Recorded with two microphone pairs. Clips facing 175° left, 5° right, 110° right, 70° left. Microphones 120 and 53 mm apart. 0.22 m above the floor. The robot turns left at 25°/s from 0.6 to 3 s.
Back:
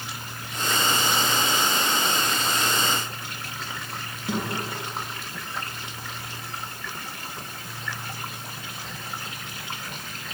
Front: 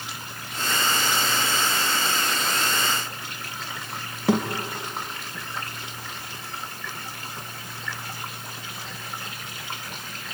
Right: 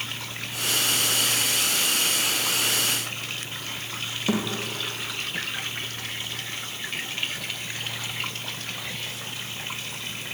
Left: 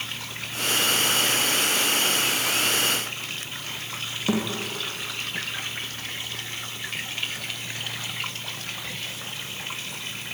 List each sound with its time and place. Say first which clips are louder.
4.3 s a thud: front 7 dB, left 1 dB; 15° right, 4.5 m